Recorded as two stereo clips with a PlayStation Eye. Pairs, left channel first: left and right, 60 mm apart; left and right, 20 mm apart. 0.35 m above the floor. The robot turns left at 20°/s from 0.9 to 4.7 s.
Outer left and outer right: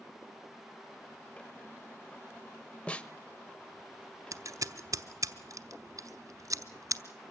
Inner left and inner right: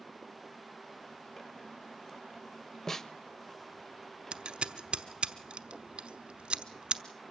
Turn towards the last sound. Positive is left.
turn(degrees=-70)  # may be behind; listen again after turning